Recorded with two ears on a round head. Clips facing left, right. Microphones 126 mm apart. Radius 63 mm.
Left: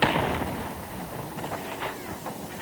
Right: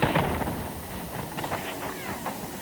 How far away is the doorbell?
I don't hear a doorbell.